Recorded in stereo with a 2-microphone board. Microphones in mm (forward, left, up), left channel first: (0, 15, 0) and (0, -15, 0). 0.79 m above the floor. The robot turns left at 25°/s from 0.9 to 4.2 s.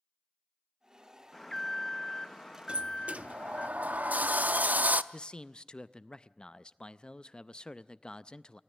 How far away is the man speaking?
About 0.5 m.